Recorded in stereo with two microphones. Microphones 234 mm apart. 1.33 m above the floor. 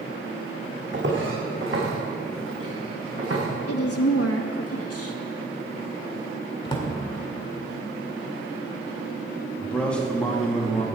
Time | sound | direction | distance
0.9 | footsteps | 50° right (ahead or behind) | 4 m
3.7 | a woman speaking | 80° left | 1.4 m
6.7 | a drawer | 20° left (ahead or behind) | 2.0 m
9.6 | a man speaking | 5° left (ahead or behind) | 2 m